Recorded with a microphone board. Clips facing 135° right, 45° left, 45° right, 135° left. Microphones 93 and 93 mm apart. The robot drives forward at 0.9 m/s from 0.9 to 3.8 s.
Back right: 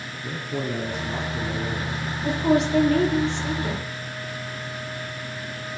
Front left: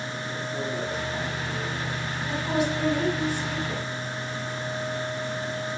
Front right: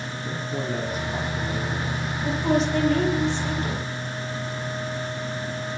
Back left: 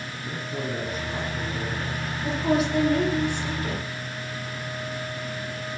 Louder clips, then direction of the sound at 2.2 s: Back right 6 dB, front right 1 dB; 140° right.